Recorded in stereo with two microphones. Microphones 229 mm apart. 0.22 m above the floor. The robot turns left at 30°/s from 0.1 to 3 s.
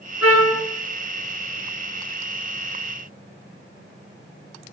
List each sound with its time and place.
0.2 s a trumpet: 85° left, 3.5 m; by 0.6 s 75° left (ahead or behind), 3.5 m